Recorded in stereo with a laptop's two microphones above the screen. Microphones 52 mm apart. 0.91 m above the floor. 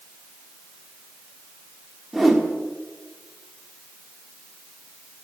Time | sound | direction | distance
2.1 | a whoosh | centre (ahead or behind) | 1.1 m